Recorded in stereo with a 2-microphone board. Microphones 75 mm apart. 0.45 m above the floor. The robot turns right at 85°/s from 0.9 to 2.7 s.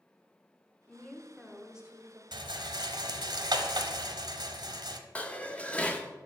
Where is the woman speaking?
20° left (ahead or behind), 0.9 m; by 2.2 s 20° right (ahead or behind), 0.9 m.